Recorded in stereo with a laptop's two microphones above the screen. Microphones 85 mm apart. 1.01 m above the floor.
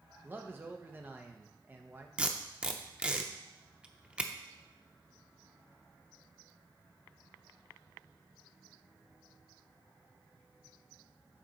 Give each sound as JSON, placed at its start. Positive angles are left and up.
{"t": 0.2, "sound": "a man speaking", "side_deg": -25, "distance_m": 0.6}
{"t": 2.2, "sound": "tape being pulled", "side_deg": -15, "distance_m": 0.6}